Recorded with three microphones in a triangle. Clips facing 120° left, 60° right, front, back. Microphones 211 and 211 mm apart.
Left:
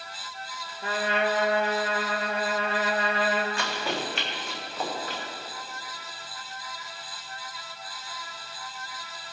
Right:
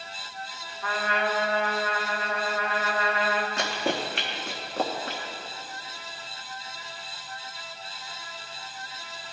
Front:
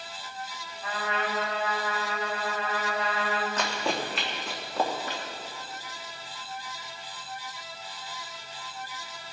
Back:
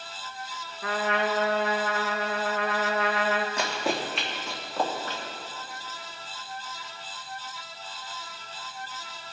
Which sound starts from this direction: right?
Running footsteps, at 3.6 s.